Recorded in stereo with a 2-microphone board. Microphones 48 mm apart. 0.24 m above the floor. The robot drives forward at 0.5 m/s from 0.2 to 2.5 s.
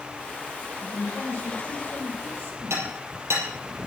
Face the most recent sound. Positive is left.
turn(degrees=-70)  # may be behind; listen again after turning